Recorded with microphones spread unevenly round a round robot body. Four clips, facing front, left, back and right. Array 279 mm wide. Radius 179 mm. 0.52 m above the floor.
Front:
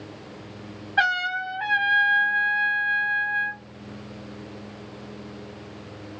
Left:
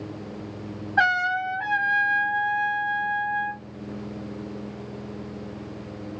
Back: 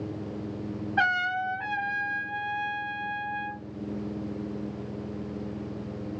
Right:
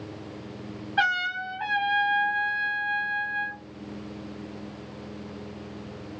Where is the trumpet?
85° left, 1.2 m.